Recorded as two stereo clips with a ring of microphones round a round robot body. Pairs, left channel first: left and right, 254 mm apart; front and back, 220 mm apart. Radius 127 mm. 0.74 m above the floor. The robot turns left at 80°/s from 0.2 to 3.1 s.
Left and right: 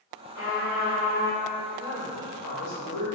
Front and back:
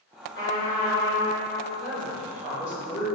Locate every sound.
0.3 s a trumpet: 45° left, 1.7 m; by 1.5 s 45° right, 1.7 m
1.8 s a woman speaking: 155° left, 0.9 m; by 3.0 s 55° left, 0.9 m